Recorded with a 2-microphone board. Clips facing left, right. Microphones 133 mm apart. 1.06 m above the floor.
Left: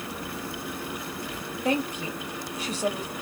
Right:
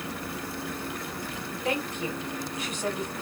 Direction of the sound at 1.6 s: 35° left (ahead or behind).